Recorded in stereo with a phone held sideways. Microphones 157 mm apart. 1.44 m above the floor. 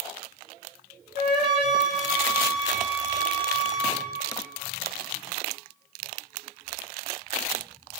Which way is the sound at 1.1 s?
75° left (ahead or behind).